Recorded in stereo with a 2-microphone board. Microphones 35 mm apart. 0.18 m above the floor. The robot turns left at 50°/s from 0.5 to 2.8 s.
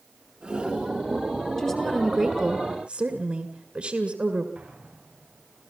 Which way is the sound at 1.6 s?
10° left.